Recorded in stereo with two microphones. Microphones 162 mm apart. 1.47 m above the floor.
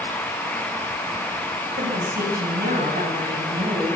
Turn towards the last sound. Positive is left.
turn(degrees=-70)  # may be behind; listen again after turning